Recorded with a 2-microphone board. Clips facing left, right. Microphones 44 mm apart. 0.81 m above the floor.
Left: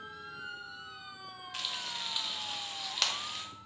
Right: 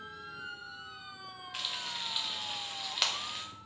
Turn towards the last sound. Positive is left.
turn(degrees=-5)  # may be behind; listen again after turning